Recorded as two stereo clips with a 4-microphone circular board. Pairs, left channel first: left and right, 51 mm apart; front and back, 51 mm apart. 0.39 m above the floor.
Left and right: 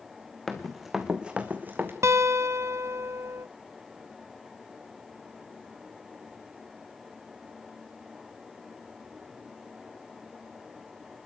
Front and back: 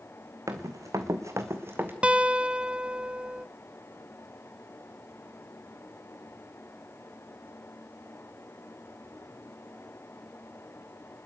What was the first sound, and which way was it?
Running footsteps, 175° left.